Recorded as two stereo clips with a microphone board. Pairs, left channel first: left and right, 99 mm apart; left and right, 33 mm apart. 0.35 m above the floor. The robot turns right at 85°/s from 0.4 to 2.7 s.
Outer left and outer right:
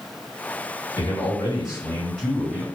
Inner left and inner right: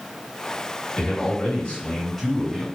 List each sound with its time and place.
1.0 s a man speaking: 70° left, 2 m; by 2.6 s 145° right, 2 m